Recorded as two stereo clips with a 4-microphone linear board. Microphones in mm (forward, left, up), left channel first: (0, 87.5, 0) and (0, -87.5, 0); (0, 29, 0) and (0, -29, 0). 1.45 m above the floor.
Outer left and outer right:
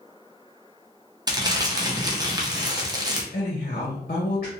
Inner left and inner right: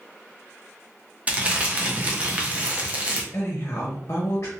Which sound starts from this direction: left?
A woman speaking, at 3.3 s.